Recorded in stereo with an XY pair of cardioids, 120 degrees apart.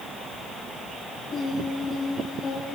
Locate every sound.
1.3 s singing: 45° left, 10 m